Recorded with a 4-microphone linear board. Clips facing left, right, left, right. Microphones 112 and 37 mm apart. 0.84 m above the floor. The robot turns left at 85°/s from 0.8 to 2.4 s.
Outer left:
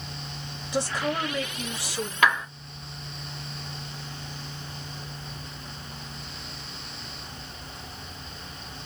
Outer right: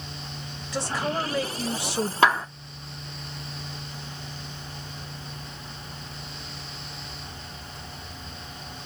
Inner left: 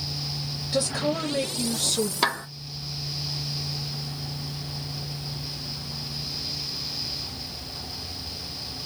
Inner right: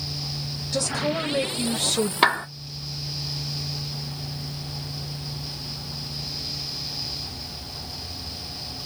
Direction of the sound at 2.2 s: 30° right (ahead or behind).